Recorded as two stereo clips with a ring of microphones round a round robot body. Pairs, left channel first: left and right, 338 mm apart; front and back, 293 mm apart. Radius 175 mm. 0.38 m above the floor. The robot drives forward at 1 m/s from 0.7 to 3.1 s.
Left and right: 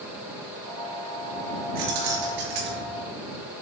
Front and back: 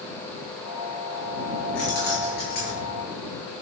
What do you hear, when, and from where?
1.8 s keys jangling: 55° right, 5.5 m; by 2.9 s 70° right, 5 m